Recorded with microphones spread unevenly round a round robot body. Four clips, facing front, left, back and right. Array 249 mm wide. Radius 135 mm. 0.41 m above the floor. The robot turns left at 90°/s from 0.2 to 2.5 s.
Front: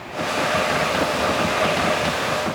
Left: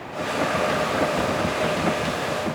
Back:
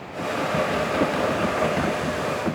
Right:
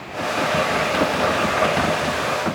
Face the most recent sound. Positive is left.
No sound to turn to.